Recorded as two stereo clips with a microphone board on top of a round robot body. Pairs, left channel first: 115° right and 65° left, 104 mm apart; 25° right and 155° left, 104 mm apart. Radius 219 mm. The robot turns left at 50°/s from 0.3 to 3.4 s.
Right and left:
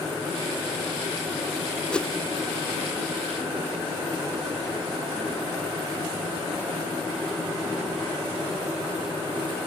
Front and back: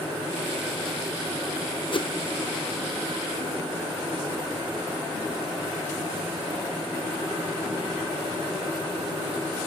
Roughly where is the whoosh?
Ahead right.